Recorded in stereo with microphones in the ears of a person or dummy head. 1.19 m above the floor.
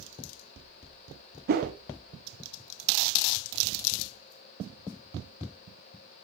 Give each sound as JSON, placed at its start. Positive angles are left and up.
{"t": 1.5, "sound": "a whoosh", "side_deg": -50, "distance_m": 1.2}